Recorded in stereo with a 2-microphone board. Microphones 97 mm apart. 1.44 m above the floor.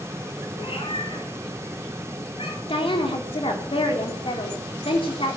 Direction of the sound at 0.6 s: 65° left (ahead or behind).